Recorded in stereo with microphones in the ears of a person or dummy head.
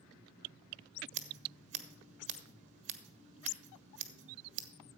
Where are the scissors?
40° right (ahead or behind), 1.3 m.